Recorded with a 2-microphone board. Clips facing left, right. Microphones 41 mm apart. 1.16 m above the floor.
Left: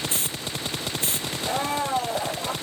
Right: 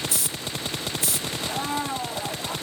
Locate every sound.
0.1 s a hiss: 40° left (ahead or behind), 0.5 m
1.4 s a blender: 80° left, 5 m